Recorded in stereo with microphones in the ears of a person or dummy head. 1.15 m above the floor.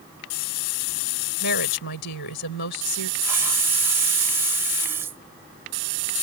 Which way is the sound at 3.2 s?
15° right (ahead or behind).